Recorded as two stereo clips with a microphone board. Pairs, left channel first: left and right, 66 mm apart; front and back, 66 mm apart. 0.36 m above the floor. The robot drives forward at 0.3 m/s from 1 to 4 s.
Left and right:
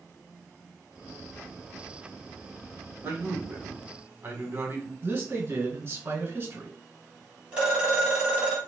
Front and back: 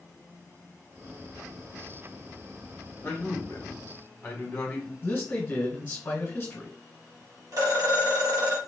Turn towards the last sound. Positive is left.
turn(degrees=-160)